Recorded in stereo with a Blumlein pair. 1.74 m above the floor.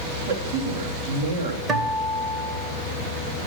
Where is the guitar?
20° right, 1.4 m.